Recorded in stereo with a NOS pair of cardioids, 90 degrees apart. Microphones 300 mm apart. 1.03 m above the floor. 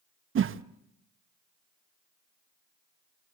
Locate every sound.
0.3 s a whoosh: 45° right, 0.9 m